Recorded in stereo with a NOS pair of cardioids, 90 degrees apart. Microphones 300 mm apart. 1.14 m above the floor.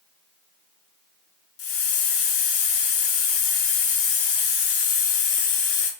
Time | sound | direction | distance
1.6 | a hiss | 50° left | 0.5 m